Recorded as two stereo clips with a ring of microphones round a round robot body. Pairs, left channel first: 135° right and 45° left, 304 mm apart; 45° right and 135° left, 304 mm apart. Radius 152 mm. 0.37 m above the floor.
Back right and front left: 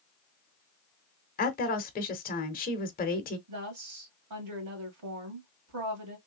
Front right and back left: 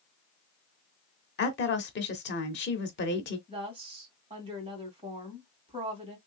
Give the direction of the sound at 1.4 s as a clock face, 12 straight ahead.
3 o'clock.